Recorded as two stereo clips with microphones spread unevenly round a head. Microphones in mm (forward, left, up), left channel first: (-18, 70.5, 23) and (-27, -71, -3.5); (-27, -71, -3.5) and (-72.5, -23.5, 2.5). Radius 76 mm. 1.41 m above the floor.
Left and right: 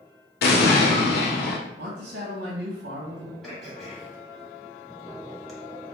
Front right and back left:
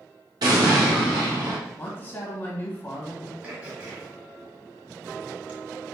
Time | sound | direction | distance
0.4 | an explosion | 95° left | 0.8 m
1.8 | a man speaking | 105° right | 1.7 m
3.4 | throat clearing | 145° left | 1.3 m